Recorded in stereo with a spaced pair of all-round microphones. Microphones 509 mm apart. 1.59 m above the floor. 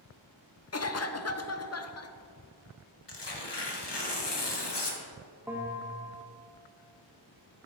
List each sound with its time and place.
0.7 s a cough: 35° left (ahead or behind), 0.5 m
3.1 s tearing paper: 55° left (ahead or behind), 1.0 m
5.5 s a bell: 5° right (ahead or behind), 0.9 m